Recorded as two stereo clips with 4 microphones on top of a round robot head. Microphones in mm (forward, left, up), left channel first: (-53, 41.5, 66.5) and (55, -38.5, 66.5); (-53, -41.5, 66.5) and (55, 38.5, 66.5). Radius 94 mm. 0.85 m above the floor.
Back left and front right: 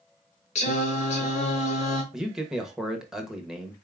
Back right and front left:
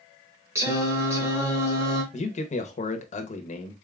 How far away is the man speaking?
About 0.8 m.